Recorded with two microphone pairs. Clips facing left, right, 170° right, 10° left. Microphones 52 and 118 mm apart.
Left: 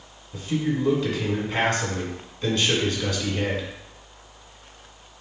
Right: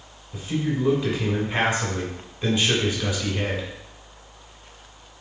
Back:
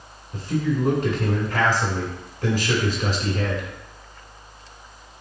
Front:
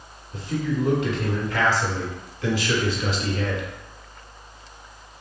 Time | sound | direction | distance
0.3 | a man speaking | 160° right | 1.5 m